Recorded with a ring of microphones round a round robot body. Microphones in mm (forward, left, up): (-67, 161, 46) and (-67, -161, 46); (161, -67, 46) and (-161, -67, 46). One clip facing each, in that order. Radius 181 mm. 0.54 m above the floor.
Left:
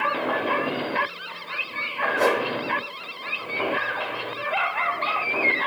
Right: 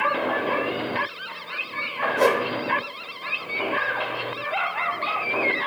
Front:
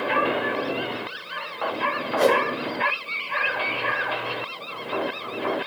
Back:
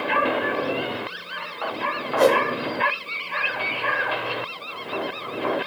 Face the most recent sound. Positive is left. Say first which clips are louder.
# right 2 dB, back 2 dB
turn(degrees=-140)